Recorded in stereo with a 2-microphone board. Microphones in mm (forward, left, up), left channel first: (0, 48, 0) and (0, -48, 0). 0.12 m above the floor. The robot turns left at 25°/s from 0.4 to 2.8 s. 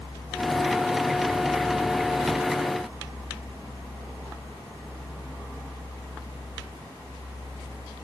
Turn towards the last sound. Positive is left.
No sound to turn to.